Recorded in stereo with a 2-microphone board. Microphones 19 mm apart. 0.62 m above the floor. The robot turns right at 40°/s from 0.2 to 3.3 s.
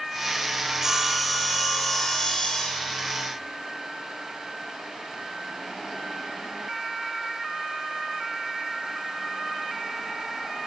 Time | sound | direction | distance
0.7 | sawing | 40° right | 1.5 m